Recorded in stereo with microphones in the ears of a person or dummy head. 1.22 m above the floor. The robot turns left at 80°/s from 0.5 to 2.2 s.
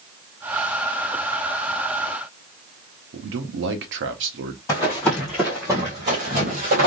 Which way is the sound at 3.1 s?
65° right (ahead or behind).